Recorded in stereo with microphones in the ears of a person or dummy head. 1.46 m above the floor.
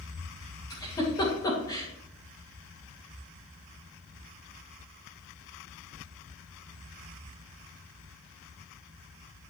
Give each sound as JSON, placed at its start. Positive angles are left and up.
{"t": 0.7, "sound": "a giggle", "side_deg": 20, "distance_m": 2.5}